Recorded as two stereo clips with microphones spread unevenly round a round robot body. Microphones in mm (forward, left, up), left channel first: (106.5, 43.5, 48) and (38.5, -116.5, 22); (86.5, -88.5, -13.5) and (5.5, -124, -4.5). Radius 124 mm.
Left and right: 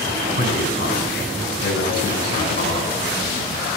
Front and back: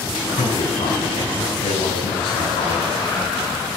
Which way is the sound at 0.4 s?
40° left.